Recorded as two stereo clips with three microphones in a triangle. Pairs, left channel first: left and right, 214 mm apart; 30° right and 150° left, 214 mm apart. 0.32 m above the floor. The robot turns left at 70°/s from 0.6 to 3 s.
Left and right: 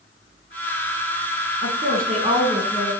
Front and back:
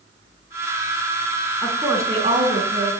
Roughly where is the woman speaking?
Right.